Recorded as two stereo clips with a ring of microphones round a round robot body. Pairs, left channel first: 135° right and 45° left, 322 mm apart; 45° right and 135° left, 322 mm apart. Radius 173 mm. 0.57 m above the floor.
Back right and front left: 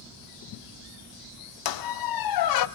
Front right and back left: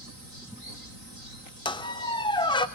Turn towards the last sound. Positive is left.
turn(degrees=-120)